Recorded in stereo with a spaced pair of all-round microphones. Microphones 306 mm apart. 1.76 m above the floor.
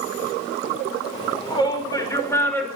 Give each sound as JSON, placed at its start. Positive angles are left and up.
{"t": 1.1, "sound": "a shout", "side_deg": 15, "distance_m": 6.0}